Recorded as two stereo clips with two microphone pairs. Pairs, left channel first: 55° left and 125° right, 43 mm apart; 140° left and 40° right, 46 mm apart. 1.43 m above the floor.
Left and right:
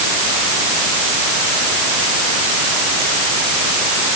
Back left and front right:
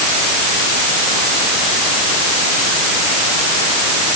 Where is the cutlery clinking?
No cutlery clinking in this recording.